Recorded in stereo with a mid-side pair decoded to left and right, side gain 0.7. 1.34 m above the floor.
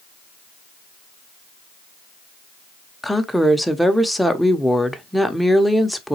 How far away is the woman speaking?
About 0.7 m.